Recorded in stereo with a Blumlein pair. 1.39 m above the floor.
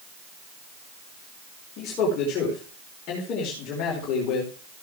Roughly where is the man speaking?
Ahead left.